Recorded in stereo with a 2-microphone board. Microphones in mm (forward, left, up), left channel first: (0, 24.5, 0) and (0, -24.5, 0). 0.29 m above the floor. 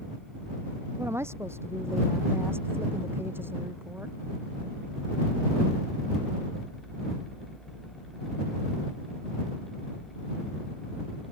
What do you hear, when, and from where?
0.9 s a woman speaking: 60° right (ahead or behind); by 4.2 s 45° right (ahead or behind)